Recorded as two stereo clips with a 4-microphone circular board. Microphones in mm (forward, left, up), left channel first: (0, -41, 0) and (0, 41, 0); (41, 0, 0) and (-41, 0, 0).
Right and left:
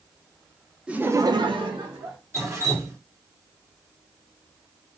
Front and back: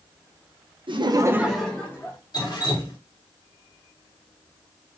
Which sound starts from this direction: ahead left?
Dripping, at 2.3 s.